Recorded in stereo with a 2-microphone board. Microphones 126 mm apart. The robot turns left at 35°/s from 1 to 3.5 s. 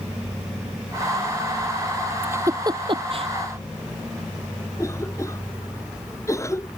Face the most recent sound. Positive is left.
turn(degrees=25)  # may be behind; listen again after turning